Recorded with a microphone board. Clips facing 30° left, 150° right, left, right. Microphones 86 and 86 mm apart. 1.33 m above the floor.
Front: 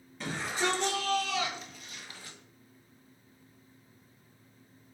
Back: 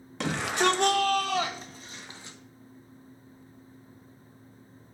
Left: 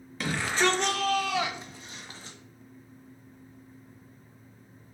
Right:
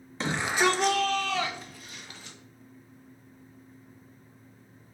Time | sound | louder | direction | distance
0.2 | a shout | back 6 dB, right 1 dB | 155° right | 1.1 m